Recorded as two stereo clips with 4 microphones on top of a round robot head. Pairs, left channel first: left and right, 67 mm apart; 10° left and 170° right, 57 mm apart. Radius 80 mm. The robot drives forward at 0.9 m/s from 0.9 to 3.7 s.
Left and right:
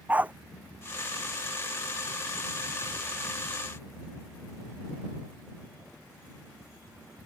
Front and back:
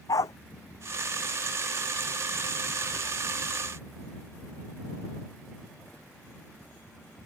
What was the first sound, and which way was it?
A dog barking, 20° right.